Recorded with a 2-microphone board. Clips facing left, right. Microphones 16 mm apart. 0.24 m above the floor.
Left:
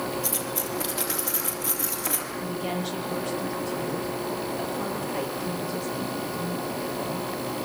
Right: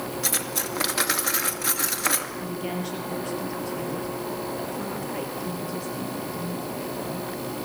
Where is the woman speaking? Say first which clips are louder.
Left 1 dB; 10° right (ahead or behind), 6 m.